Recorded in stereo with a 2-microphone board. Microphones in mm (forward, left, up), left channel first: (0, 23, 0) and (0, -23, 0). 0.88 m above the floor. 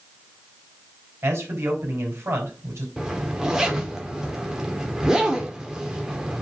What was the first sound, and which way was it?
A man speaking, 70° right (ahead or behind).